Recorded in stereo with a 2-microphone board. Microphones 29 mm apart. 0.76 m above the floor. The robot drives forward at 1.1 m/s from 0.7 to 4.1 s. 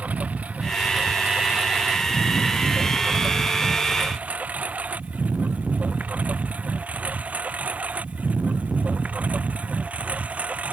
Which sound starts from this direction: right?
A lawn mower, at 0.0 s.